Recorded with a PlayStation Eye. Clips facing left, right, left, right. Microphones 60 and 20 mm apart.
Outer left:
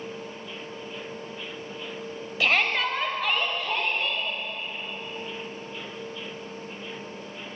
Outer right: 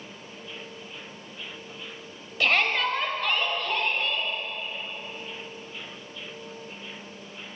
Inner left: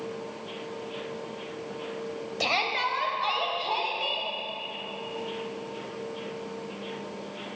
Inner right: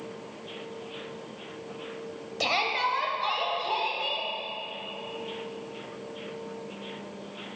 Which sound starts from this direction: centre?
A shout, at 2.4 s.